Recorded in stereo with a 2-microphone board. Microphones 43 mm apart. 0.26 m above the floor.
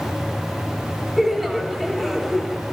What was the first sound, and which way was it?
Laughter, centre (ahead or behind).